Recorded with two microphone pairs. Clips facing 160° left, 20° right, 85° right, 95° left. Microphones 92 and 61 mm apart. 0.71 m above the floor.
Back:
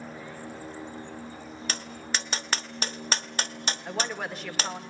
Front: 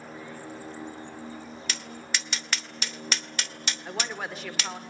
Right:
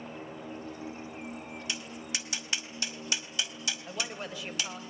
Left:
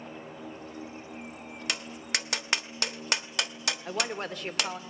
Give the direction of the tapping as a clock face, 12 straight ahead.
8 o'clock.